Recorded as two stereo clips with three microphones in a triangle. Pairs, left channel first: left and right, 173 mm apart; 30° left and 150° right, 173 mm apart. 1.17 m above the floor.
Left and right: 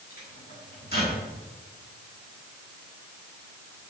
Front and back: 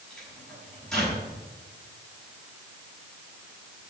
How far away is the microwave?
About 6.5 m.